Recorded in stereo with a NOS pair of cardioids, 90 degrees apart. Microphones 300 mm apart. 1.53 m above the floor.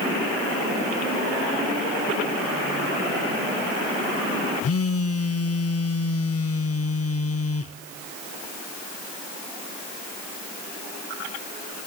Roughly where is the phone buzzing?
Ahead left.